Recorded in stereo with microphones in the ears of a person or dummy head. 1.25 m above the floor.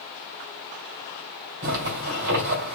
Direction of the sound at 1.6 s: 70° right (ahead or behind).